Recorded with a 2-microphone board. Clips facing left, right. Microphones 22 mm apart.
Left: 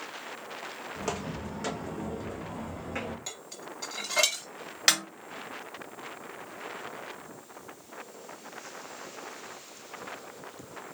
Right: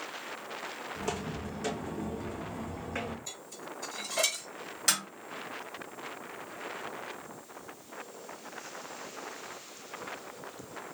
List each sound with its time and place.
0.9 s footsteps: 25° left (ahead or behind), 2.5 m; by 3.2 s 10° right (ahead or behind), 3 m
3.3 s dishes clattering: 50° left (ahead or behind), 1.5 m
4.9 s a snare drum: 35° left (ahead or behind), 1.3 m